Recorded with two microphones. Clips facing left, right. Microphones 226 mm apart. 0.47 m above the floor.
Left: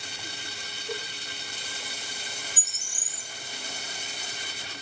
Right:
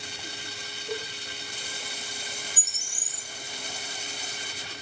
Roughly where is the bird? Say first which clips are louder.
Right 1 dB; centre.